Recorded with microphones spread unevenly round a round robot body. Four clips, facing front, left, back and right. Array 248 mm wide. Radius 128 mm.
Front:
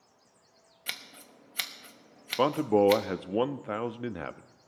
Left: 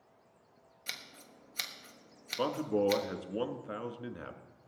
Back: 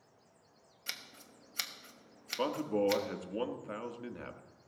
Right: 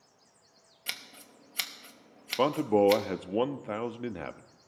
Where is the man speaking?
45° right, 0.7 m.